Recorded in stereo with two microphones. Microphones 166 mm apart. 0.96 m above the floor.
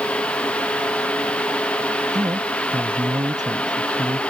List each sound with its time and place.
2.1 s a man speaking: 25° right (ahead or behind)